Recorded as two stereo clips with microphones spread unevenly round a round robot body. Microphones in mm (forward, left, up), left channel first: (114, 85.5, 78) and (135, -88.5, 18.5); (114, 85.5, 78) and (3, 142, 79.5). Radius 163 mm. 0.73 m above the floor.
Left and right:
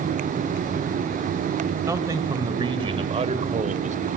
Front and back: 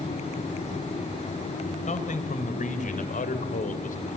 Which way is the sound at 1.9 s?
10° right.